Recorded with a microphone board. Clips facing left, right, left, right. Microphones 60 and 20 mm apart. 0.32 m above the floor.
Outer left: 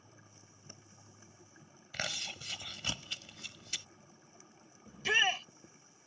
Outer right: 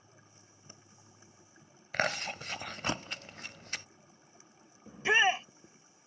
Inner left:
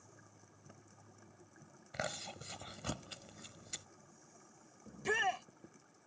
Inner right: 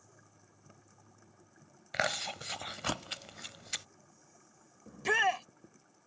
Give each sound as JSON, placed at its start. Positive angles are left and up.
{"t": 1.9, "sound": "chewing", "side_deg": -45}
{"t": 4.9, "sound": "a shout", "side_deg": -25}